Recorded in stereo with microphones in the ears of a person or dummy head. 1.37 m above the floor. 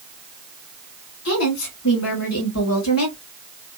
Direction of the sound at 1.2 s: 75° left (ahead or behind).